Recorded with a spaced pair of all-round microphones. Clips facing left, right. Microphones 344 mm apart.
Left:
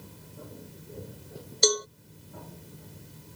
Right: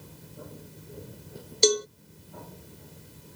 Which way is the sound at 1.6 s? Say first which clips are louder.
Right 4 dB; 40° right (ahead or behind).